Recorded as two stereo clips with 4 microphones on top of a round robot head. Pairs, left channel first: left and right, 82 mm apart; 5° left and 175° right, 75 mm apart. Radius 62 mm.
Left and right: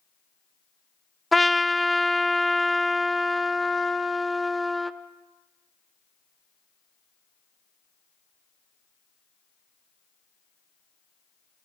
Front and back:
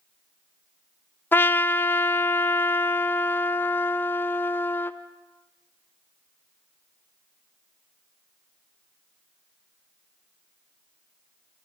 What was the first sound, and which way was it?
A trumpet, straight ahead.